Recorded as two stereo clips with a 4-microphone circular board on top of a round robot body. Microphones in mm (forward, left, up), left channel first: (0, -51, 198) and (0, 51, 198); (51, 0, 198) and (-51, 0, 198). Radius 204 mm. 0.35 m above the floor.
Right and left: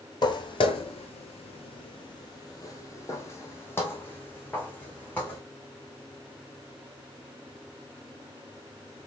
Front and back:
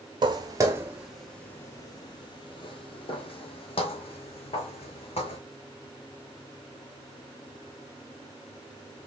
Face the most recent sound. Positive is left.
turn(degrees=-15)